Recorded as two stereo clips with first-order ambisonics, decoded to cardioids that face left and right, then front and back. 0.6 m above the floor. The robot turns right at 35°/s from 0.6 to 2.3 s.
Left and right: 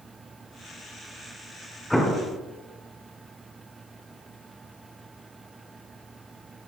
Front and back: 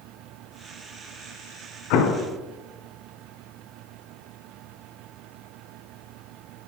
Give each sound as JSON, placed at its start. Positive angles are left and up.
{"t": 1.9, "sound": "an explosion", "azimuth_deg": 5, "distance_m": 1.5}